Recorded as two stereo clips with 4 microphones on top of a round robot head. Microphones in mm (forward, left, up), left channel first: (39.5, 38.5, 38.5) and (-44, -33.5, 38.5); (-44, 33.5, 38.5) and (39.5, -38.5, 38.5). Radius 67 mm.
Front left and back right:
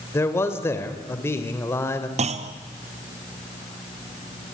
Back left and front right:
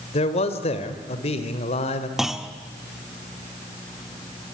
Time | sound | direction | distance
0.1 | a man speaking | 110° left | 2.5 m
2.2 | a clunk | 125° right | 1.4 m